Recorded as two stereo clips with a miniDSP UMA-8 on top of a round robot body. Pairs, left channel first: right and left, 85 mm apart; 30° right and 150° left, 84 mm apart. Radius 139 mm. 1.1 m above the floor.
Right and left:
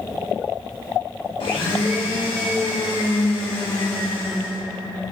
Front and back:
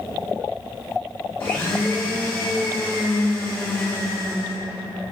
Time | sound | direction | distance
1.4 | a blender | 95° right | 1.1 m